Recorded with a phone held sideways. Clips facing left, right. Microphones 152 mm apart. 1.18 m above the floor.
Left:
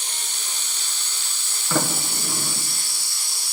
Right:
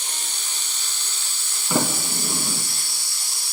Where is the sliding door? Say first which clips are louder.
Right 1 dB; 15° right (ahead or behind), 3.5 m.